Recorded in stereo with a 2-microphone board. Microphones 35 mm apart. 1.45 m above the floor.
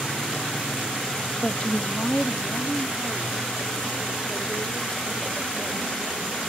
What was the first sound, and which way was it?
A woman speaking, 45° left (ahead or behind).